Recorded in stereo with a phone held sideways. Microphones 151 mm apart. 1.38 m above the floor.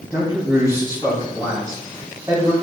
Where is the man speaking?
20° right (ahead or behind), 3 m.